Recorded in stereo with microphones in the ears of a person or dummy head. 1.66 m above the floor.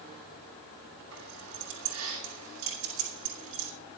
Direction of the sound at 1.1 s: 75° right (ahead or behind).